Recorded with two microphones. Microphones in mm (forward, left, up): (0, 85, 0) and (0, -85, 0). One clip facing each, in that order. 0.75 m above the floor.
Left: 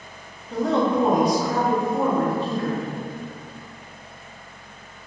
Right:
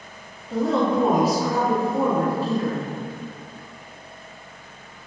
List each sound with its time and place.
0.5 s a woman speaking: 5° right (ahead or behind), 0.8 m